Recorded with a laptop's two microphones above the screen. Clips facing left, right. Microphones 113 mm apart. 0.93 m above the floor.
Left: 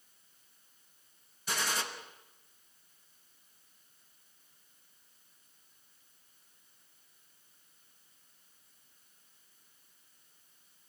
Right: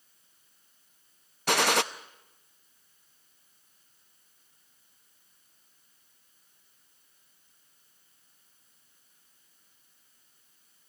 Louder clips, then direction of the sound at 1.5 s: Right 11 dB; 75° right (ahead or behind).